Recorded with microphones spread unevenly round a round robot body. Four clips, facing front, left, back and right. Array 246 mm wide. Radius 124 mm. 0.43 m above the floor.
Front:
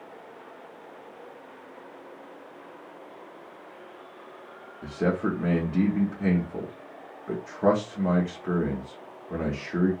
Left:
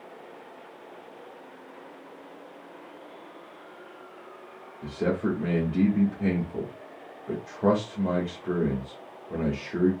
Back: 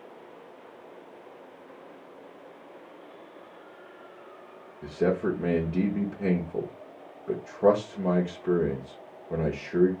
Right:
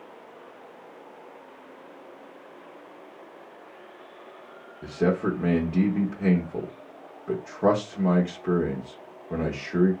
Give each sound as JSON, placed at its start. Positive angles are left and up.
{"t": 4.8, "sound": "a man speaking", "azimuth_deg": -150, "distance_m": 0.8}